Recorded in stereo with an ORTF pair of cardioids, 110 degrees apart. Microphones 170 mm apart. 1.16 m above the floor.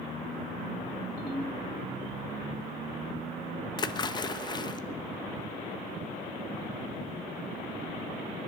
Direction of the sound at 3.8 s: 25° left.